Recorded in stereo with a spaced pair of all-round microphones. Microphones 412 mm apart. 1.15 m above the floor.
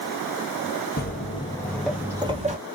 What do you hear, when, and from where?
1.0 s footsteps: 20° left (ahead or behind), 1.4 m; by 2.6 s 20° right (ahead or behind), 1.4 m